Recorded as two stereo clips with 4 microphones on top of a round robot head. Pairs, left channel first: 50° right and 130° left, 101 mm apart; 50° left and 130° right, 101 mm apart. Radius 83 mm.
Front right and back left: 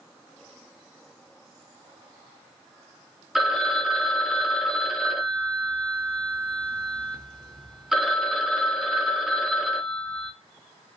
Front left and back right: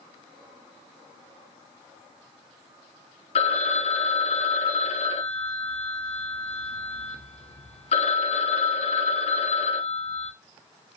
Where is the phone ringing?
45° left, 0.8 m.